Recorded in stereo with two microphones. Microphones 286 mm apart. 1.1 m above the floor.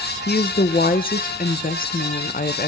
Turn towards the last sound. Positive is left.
turn(degrees=30)  # may be behind; listen again after turning